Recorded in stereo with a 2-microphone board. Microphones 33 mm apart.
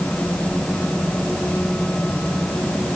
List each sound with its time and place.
Only background noise.